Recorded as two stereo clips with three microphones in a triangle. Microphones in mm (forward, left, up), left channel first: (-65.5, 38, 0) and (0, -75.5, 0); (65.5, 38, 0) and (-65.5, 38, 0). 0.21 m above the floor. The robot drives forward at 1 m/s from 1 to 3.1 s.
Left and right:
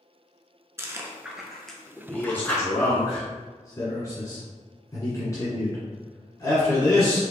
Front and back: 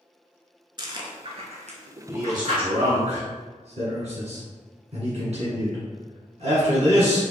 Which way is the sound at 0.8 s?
130° right.